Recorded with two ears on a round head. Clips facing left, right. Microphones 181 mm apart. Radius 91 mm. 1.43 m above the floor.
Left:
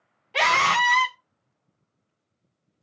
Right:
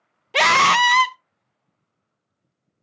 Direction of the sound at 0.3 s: 60° right (ahead or behind).